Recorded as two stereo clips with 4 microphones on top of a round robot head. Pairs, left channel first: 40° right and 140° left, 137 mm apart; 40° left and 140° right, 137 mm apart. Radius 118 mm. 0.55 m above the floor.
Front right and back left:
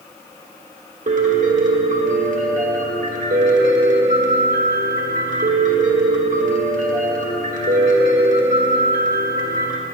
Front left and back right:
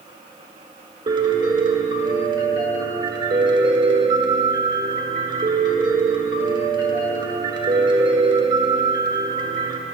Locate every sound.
1.1 s a piano: 165° left, 1.3 m